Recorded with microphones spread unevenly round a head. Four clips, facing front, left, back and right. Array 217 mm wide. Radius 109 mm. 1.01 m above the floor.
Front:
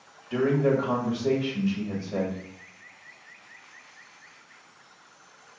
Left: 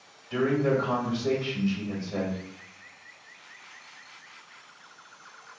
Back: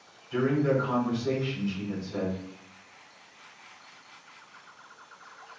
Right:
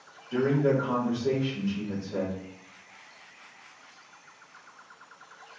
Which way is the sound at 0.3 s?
5° left.